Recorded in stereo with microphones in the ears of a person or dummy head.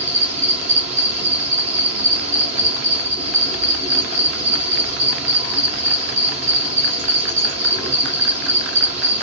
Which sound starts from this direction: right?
An insect, at 0.0 s.